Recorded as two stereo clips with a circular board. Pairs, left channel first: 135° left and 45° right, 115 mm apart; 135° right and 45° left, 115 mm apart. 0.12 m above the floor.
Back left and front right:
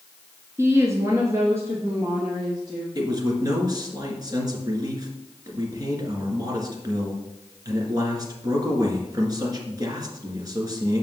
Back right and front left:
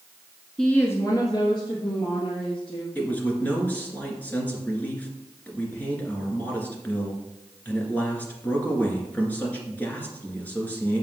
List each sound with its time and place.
0.6 s a woman speaking: 60° right, 1.1 m; by 2.9 s 110° right, 3 m
3.0 s a man speaking: 70° right, 1.9 m